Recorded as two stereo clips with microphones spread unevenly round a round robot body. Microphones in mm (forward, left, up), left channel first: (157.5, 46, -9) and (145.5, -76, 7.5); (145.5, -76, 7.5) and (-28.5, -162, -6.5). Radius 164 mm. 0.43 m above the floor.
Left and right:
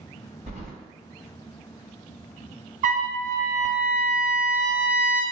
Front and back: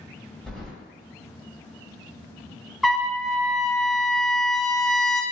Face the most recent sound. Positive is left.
turn(degrees=-65)